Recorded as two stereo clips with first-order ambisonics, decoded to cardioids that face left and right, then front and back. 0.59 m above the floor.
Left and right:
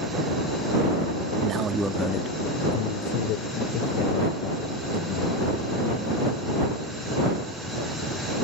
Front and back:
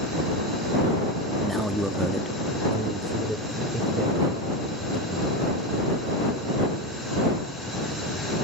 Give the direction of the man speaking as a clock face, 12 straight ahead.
3 o'clock.